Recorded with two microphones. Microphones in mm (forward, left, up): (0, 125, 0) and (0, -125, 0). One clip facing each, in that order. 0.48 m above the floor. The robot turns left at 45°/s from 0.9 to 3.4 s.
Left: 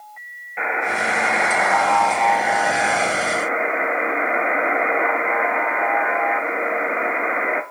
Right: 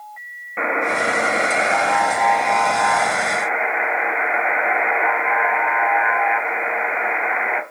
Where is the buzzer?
115° right, 0.6 m; by 7.6 s 130° left, 0.6 m.